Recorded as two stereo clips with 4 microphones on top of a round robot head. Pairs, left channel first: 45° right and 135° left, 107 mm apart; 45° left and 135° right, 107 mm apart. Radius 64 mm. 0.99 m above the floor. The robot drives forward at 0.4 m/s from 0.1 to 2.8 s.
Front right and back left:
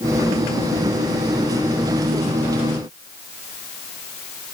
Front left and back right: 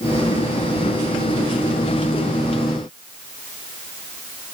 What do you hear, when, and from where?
Only background noise.